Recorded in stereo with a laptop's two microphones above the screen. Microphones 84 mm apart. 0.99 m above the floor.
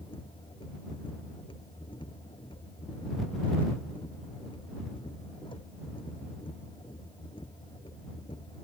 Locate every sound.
0.0 s a machine running: 90° left